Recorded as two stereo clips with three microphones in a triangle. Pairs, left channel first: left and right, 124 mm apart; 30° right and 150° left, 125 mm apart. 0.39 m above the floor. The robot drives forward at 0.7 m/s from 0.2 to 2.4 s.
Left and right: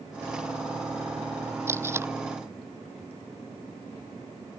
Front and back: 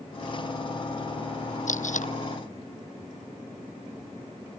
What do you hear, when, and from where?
1.7 s tape being pulled: 20° right